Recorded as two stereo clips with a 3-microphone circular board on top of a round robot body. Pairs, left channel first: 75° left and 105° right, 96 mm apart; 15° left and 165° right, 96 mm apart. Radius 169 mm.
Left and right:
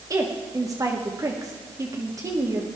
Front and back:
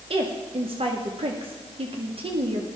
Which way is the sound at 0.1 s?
160° right.